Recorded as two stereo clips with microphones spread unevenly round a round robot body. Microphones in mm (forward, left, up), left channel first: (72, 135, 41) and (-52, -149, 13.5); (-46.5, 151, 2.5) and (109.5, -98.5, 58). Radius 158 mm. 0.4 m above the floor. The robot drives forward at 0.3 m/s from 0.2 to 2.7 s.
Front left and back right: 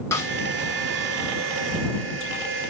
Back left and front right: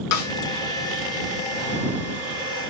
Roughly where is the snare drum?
Behind left.